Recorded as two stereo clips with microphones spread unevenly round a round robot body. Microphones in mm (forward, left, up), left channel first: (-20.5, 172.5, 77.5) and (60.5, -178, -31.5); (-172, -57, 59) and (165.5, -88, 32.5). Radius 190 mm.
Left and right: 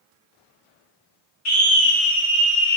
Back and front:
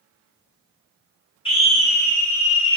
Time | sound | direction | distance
1.4 | a scream | 115° left | 1.3 m